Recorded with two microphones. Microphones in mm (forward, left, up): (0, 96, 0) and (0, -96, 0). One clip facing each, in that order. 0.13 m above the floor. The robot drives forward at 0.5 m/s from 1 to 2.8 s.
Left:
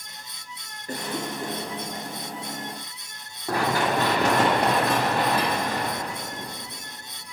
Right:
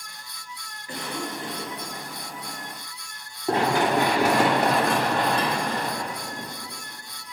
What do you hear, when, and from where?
0.9 s a cough: 45° left (ahead or behind), 2.5 m; by 1.8 s 50° left (ahead or behind), 2 m
3.5 s running footsteps: 25° right (ahead or behind), 1.6 m; by 6.5 s 15° left (ahead or behind), 3 m